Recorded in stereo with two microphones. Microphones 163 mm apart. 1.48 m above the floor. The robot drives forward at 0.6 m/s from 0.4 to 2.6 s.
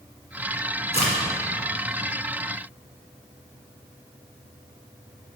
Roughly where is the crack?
Left.